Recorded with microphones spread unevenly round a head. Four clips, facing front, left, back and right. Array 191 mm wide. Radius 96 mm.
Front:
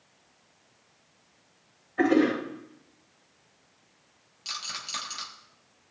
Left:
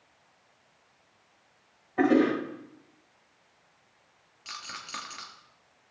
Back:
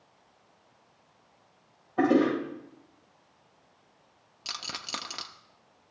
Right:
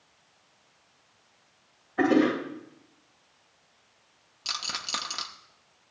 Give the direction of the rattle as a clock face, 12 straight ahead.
5 o'clock.